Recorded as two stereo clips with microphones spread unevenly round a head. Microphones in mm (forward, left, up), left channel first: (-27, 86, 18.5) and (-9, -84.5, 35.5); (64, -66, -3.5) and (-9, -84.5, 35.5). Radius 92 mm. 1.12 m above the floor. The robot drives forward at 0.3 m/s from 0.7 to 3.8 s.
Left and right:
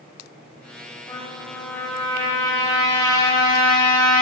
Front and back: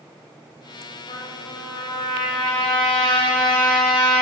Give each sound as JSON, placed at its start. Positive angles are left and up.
{"t": 1.1, "sound": "a trumpet", "azimuth_deg": 25, "distance_m": 4.5}